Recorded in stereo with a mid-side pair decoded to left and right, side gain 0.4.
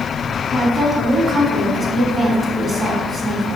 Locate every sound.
0.5 s a woman speaking: 35° right, 2.5 m